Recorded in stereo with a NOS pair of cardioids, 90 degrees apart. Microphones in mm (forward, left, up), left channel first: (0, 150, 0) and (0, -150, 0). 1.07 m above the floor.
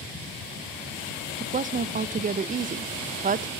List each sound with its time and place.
1.4 s a woman speaking: 25° right, 0.5 m